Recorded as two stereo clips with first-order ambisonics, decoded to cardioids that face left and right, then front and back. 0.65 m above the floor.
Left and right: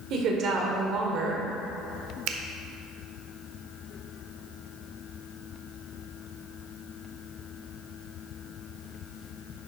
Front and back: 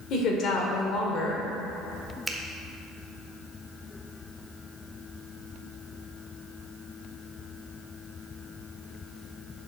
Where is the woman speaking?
45° right, 2 m.